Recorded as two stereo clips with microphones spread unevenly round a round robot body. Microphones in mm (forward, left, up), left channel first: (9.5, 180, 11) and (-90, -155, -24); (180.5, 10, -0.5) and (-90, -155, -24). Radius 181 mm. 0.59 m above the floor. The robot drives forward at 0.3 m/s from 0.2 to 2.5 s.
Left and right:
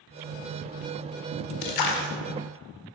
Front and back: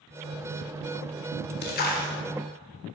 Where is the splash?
95° left, 2 m; by 2.1 s 100° left, 2 m.